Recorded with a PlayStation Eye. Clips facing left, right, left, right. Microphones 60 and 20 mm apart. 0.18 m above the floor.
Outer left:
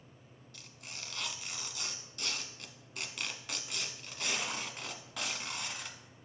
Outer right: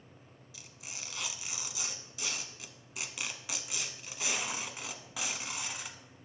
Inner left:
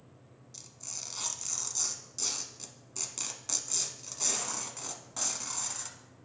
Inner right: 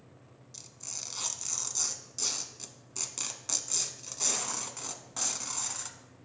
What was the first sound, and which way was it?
Tearing paper, 5° right (ahead or behind).